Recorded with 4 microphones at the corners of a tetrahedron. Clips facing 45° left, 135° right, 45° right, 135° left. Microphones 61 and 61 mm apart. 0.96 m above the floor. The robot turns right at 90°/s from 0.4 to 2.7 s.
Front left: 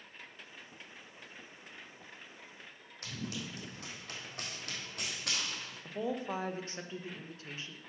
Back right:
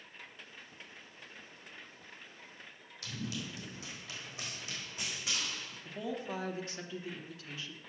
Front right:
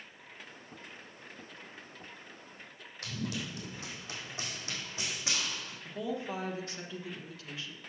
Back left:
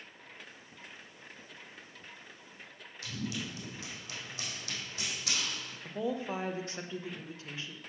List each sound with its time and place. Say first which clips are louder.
3.0 s running footsteps: even, front right 1 dB; 5° right, 3 m; by 5.8 s 25° left, 3.5 m
5.8 s a woman speaking: front left 3 dB, back left 2 dB; 85° left, 1.0 m